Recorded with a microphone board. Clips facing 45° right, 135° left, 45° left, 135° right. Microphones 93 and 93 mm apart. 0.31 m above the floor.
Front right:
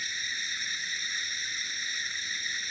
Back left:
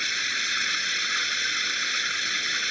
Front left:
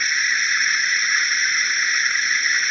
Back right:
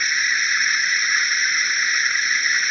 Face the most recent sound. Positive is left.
turn(degrees=135)